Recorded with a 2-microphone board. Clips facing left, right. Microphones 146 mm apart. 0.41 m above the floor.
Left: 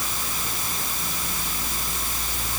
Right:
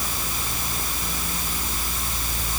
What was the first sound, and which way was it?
Only background noise.